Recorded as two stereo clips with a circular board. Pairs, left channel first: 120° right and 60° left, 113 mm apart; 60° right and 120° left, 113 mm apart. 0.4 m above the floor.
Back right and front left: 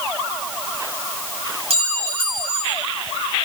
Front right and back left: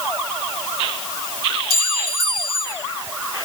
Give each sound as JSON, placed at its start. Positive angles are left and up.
{"t": 1.7, "sound": "a clink", "azimuth_deg": 95, "distance_m": 5.5}